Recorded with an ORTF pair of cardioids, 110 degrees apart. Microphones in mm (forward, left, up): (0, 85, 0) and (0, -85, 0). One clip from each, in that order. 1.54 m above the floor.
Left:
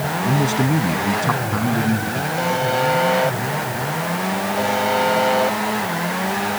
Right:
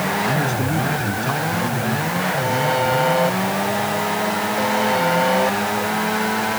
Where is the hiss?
No hiss in this recording.